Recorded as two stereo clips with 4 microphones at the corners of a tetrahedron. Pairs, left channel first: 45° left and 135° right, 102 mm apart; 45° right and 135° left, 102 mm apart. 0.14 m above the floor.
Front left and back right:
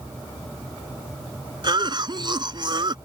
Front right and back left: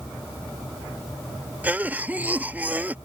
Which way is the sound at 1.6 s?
155° right.